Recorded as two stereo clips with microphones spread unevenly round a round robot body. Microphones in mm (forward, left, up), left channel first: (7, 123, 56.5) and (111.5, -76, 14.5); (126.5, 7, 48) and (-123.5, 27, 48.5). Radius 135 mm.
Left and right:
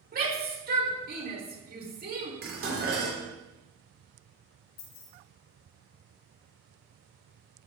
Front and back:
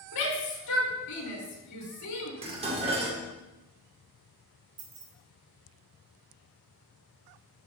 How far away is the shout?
About 4.5 m.